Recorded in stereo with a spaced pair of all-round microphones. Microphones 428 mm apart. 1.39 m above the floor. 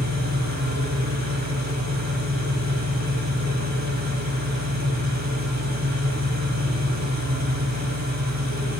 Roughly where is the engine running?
Right.